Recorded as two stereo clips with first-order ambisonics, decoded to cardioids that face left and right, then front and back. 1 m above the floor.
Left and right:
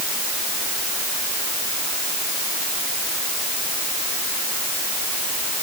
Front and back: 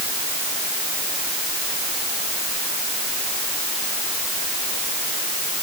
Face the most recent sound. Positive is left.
No sound to turn to.